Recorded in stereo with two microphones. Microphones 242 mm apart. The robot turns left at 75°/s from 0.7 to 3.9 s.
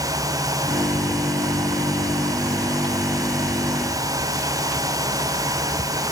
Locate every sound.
Only background noise.